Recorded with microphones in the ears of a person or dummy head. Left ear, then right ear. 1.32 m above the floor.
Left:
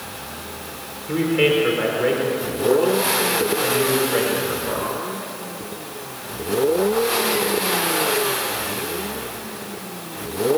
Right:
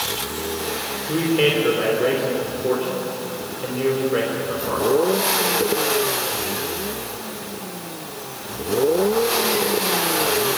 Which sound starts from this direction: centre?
A man speaking, at 1.1 s.